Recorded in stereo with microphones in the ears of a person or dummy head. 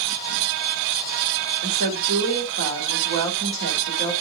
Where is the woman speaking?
65° right (ahead or behind), 4.5 m.